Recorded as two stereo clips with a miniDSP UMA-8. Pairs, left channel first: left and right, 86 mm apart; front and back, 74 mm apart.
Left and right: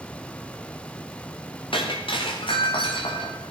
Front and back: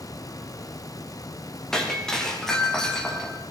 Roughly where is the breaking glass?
Left.